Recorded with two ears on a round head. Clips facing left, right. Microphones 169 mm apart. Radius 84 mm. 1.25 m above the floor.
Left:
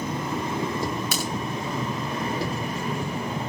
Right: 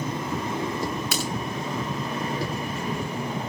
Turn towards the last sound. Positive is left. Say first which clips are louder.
# even
turn(degrees=80)